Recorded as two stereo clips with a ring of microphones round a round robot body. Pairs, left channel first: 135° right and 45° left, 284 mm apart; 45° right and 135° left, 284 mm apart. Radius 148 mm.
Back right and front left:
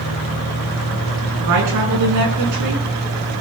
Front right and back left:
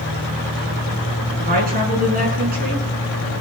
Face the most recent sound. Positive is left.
turn(degrees=75)